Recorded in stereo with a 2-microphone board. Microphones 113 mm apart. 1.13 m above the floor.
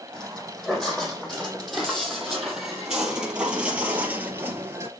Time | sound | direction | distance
0.1 | footsteps | 5° left (ahead or behind) | 3.5 m